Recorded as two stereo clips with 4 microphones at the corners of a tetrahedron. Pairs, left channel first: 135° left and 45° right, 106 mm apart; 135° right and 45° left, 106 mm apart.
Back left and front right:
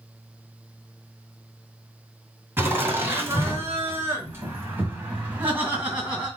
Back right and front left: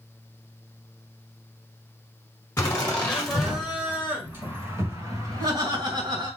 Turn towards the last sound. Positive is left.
turn(degrees=30)